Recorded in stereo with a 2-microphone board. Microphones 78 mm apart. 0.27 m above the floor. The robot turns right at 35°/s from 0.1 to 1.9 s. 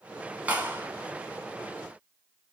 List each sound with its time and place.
0.5 s a clap: 20° right (ahead or behind), 1.1 m; by 0.9 s 25° right (ahead or behind), 1.1 m